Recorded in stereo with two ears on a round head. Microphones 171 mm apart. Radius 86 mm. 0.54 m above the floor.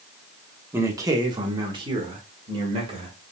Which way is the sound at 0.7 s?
15° right (ahead or behind).